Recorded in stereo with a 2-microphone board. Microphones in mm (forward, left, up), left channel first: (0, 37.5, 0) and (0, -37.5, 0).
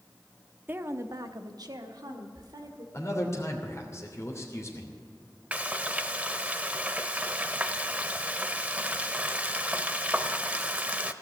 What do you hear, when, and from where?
0.7 s a woman speaking: 25° right (ahead or behind), 0.8 m; by 2.8 s 70° right (ahead or behind), 2 m
2.9 s a man speaking: 40° left (ahead or behind), 3 m
5.5 s frying: 20° right (ahead or behind), 0.6 m